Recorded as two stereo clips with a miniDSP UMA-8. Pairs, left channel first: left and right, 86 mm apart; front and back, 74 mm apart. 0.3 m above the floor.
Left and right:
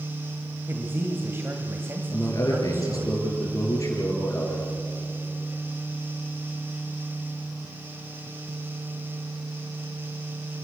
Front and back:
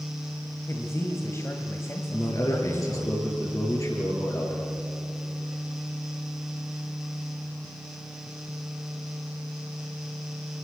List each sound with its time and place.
0.7 s a man speaking: 35° right, 1.7 m
2.1 s a man speaking: 40° left, 6 m